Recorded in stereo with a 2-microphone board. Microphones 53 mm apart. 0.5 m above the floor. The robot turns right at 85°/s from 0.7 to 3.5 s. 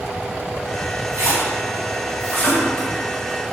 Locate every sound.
1.1 s a splash: 65° right (ahead or behind), 1.4 m; by 2.9 s 45° left (ahead or behind), 1.4 m